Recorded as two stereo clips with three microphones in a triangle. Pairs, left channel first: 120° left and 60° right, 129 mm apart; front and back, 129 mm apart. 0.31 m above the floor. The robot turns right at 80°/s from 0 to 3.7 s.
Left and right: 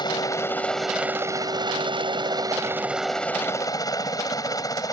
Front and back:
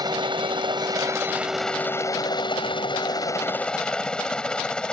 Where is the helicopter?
145° left; by 4.9 s 80° left.